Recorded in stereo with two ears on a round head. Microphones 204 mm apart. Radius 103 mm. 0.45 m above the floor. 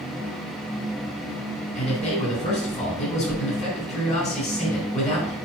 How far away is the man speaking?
About 4.5 m.